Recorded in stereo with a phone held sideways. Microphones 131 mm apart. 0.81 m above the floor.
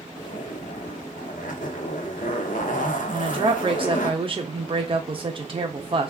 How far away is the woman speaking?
About 0.6 m.